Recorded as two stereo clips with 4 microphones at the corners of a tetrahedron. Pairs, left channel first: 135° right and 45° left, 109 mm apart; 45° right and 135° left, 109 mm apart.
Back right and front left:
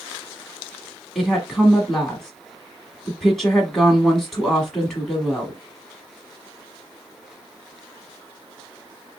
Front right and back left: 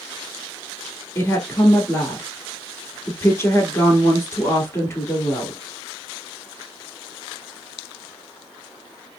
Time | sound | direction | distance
1.1 | a woman speaking | 50° right | 1.1 m